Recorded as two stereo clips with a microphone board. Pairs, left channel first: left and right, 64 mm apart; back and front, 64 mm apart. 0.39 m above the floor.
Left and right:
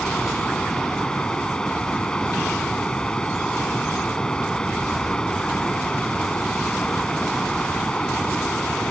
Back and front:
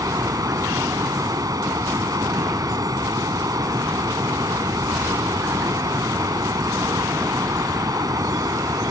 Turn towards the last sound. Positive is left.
turn(degrees=10)